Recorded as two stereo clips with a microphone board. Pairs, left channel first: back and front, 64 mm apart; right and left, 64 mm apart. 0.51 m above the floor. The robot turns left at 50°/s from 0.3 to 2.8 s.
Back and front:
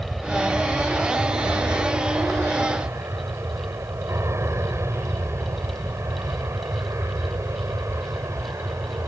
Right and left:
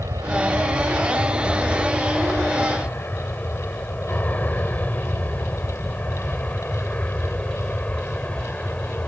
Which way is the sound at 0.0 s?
85° left.